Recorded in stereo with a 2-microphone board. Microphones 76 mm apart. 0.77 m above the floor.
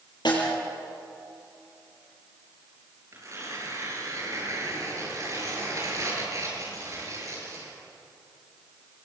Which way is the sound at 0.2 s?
75° left (ahead or behind).